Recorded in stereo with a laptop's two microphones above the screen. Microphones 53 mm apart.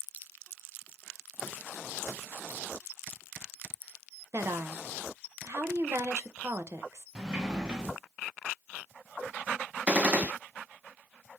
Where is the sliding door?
15° right (ahead or behind), 0.6 m.